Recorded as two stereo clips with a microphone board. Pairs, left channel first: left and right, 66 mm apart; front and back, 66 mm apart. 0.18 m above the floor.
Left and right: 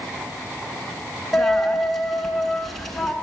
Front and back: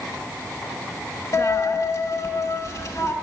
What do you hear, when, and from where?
1.3 s a dropped coin: straight ahead, 1.1 m